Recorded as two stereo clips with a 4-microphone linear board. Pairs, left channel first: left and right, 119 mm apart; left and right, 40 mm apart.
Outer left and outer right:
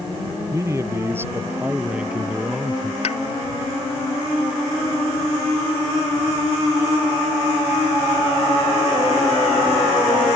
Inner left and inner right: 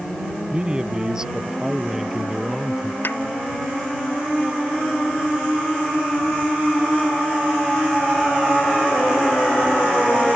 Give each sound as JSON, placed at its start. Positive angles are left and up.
{"t": 0.5, "sound": "a man speaking", "side_deg": -25}
{"t": 3.0, "sound": "a pop", "side_deg": 70}